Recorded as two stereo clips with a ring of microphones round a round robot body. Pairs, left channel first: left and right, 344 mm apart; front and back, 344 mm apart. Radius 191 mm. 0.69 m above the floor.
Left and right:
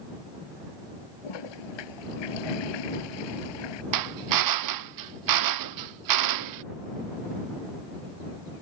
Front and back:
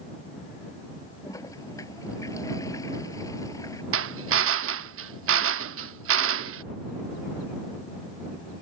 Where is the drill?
125° right.